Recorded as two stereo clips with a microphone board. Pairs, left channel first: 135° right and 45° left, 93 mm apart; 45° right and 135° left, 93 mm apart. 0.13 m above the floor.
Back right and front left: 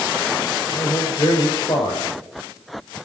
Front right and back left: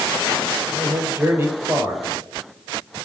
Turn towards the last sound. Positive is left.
turn(degrees=-165)